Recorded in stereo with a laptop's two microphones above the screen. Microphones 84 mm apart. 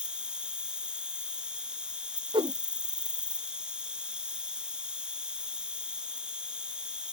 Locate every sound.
0.0 s an insect: 10° right (ahead or behind)
2.3 s a whoosh: 90° right